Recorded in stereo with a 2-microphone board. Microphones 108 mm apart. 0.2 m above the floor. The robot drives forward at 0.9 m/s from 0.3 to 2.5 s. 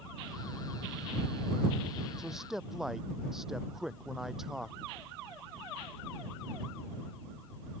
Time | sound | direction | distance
2.2 | a man speaking | 5° right (ahead or behind) | ?